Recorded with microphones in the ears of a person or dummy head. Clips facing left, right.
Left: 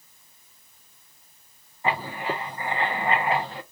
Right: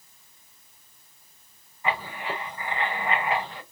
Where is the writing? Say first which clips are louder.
Left 3 dB; 35° left (ahead or behind), 0.6 m.